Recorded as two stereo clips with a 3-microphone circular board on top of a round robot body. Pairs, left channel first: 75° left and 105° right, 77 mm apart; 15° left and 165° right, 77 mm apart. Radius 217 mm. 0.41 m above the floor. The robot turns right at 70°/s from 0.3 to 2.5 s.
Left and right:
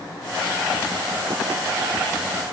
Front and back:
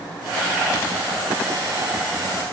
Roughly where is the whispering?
I don't hear whispering.